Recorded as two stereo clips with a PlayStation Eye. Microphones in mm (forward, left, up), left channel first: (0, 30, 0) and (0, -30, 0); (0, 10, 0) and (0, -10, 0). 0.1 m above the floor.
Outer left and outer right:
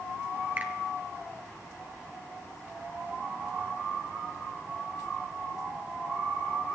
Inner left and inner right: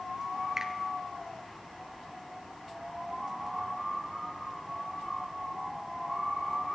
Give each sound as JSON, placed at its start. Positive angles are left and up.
{"t": 0.6, "sound": "a finger snap", "side_deg": -30, "distance_m": 1.5}